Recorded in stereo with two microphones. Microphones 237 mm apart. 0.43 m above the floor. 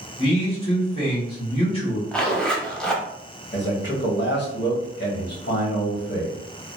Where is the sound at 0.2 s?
25° left (ahead or behind), 1.7 m.